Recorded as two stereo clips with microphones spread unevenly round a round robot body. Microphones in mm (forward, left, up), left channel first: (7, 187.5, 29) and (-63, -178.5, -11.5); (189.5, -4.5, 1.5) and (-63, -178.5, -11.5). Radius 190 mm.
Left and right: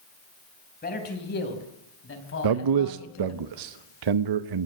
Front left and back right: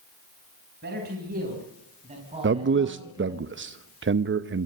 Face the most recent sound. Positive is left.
turn(degrees=-95)